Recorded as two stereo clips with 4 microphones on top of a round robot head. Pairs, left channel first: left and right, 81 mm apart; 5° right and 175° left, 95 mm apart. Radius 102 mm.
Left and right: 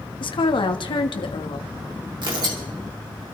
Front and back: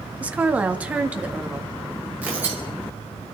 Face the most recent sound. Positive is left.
turn(degrees=-110)